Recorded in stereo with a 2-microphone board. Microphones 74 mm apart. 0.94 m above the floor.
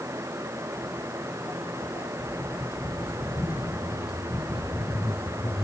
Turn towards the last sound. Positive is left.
turn(degrees=60)  # may be behind; listen again after turning